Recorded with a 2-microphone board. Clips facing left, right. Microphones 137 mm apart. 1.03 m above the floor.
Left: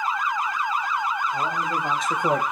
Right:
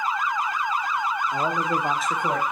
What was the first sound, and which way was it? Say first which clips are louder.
A man speaking: right 2 dB; 50° right (ahead or behind).